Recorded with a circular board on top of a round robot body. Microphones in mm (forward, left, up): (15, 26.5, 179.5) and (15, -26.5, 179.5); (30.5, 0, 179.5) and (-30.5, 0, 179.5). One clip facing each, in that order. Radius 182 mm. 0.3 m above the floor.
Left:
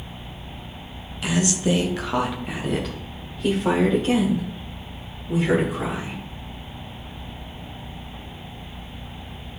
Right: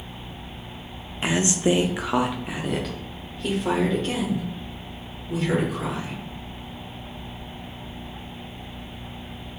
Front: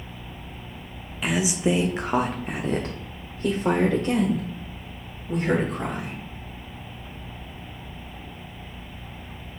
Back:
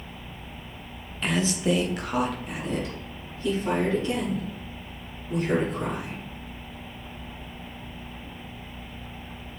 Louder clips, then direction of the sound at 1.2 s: Right 1 dB, front 1 dB; 80° right.